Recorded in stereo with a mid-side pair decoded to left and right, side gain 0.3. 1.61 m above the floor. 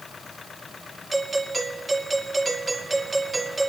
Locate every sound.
1.1 s a doorbell: 25° right, 5.5 m